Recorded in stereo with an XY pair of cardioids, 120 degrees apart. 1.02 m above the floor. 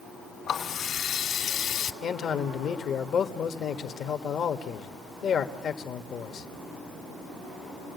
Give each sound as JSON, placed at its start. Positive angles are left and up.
{"t": 0.5, "sound": "a running tap", "azimuth_deg": 50, "distance_m": 2.5}
{"t": 2.0, "sound": "a man speaking", "azimuth_deg": 50, "distance_m": 1.6}